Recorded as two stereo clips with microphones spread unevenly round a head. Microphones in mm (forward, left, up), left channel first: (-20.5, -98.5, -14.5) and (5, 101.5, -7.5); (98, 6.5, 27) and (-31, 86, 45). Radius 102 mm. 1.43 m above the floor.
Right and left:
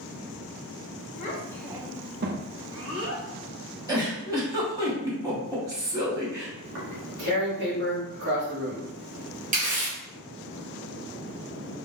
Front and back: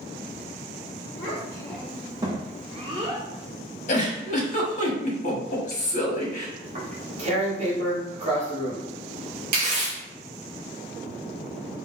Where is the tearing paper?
110° left, 1.6 m.